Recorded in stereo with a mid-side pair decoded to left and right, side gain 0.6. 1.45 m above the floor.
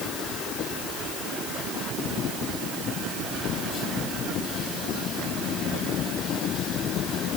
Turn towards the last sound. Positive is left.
No sound to turn to.